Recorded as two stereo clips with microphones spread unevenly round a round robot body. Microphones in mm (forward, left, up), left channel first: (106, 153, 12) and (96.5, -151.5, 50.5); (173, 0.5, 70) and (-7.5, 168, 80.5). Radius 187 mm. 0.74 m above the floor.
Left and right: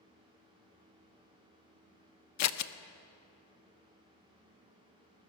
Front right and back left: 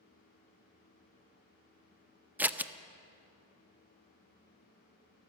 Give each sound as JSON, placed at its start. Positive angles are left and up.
{"t": 2.4, "sound": "scissors", "azimuth_deg": 50, "distance_m": 0.6}